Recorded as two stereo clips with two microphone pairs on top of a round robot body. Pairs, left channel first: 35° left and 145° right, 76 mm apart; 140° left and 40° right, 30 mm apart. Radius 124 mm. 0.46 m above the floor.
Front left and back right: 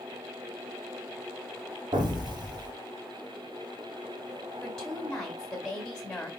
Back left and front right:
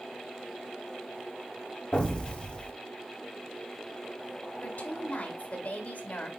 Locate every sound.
1.9 s an explosion: 175° right, 2.5 m
4.6 s a woman speaking: 115° left, 3.5 m